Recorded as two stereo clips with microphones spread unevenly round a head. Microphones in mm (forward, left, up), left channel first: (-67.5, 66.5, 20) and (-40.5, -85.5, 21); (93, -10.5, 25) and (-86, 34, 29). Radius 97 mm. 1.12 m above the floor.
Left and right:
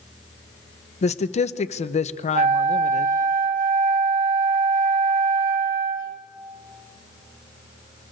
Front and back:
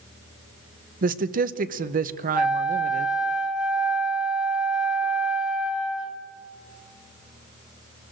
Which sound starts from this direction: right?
A flute, at 2.3 s.